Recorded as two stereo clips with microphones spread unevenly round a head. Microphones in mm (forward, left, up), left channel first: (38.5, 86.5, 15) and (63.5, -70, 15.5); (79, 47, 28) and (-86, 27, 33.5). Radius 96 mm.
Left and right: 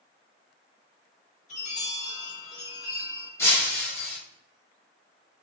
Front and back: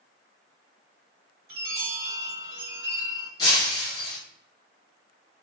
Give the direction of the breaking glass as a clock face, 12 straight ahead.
10 o'clock.